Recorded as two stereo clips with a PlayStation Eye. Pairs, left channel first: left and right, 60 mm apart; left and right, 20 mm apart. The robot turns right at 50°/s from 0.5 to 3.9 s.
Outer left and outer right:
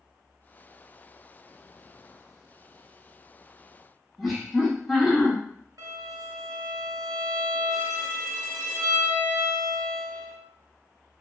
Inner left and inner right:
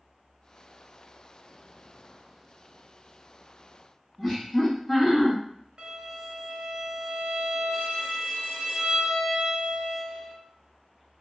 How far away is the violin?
About 0.6 m.